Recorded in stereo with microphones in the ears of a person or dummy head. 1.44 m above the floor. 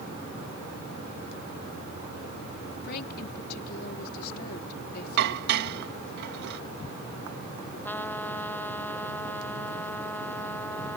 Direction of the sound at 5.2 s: 60° right (ahead or behind).